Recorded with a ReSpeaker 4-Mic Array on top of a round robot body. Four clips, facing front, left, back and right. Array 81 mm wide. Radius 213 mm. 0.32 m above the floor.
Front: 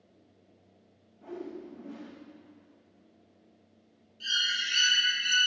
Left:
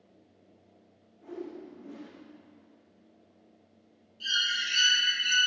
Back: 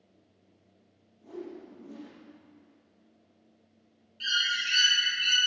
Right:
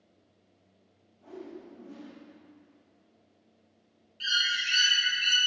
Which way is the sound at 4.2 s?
130° right.